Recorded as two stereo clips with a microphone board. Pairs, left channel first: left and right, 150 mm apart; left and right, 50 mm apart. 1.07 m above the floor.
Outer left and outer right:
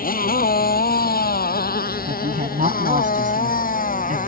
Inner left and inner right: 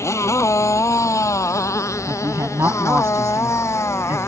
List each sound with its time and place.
0.0 s a motorcycle: 70° left (ahead or behind); by 4.3 s 65° left (ahead or behind)
2.1 s a woman speaking: 65° right (ahead or behind)